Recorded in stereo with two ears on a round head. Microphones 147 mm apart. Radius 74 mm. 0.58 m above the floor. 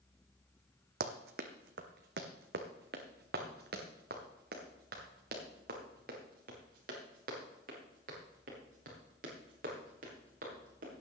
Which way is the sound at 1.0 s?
65° right (ahead or behind).